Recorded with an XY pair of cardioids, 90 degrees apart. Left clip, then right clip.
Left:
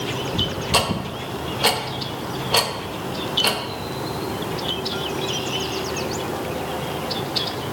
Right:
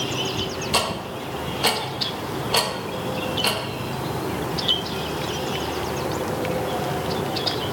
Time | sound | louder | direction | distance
0.7 | ticking | left 2 dB | 15° left | 0.6 m